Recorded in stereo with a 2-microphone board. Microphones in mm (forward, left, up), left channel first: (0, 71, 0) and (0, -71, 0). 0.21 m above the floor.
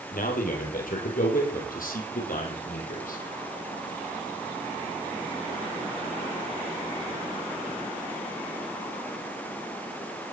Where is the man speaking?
80° left, 6.5 m; by 3.2 s 75° left (ahead or behind), 8 m.